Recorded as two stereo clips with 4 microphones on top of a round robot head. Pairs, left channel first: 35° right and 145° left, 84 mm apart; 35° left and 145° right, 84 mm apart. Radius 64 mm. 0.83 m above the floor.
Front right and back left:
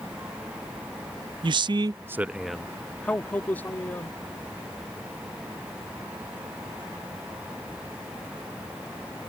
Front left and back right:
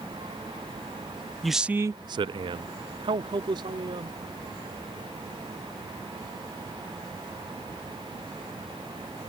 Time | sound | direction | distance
1.4 | a man speaking | 125° left | ?